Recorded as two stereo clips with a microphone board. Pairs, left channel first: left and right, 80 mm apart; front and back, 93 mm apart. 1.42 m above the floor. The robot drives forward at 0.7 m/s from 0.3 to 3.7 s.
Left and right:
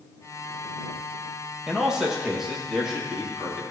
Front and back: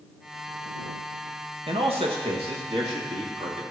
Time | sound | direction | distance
1.7 | a man speaking | 175° right | 1.4 m